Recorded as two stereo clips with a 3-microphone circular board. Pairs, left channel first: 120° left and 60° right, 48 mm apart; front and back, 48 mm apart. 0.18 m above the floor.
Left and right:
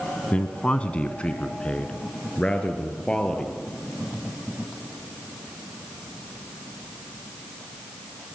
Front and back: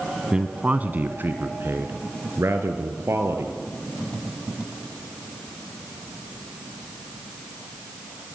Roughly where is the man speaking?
Behind left.